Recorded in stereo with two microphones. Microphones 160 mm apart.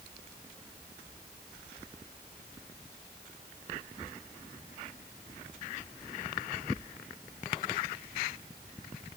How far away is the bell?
I don't hear a bell.